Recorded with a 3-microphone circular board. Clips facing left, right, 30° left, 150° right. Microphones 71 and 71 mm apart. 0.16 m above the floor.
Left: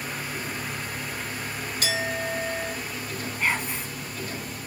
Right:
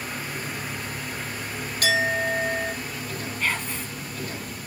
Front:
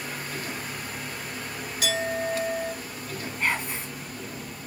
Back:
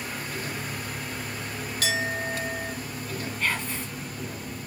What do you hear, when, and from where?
1.8 s a clink: 55° right, 3 m
3.4 s whispering: 60° left, 1.1 m